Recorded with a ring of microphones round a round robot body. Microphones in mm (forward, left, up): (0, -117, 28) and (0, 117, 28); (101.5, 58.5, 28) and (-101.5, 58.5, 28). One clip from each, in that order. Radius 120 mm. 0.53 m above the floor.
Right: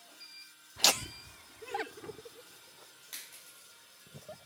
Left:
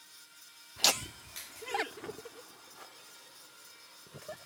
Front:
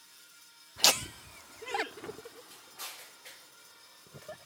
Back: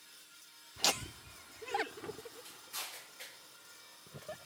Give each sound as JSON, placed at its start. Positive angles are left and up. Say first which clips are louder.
{"t": 0.8, "sound": "laughter", "louder": "right 1 dB, front 7 dB", "azimuth_deg": -10}